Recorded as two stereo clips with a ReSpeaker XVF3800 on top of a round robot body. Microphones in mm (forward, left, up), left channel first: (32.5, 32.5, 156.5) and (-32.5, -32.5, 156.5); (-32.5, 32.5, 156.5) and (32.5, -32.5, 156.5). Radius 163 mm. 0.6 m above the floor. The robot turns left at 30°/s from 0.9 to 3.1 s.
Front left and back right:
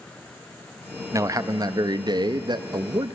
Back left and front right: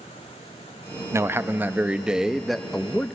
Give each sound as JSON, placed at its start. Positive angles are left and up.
{"t": 1.1, "sound": "a man speaking", "azimuth_deg": -95, "distance_m": 0.9}